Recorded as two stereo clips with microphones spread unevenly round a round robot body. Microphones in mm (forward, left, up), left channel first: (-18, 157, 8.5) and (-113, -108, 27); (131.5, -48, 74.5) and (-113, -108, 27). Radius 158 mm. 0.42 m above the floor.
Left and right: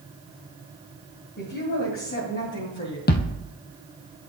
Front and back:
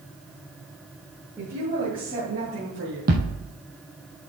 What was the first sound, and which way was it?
A woman speaking, 120° left.